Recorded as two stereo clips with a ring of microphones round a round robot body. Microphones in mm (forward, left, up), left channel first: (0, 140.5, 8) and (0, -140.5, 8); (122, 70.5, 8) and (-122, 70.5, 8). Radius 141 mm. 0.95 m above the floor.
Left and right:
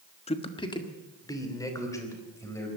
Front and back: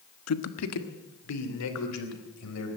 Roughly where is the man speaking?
Ahead.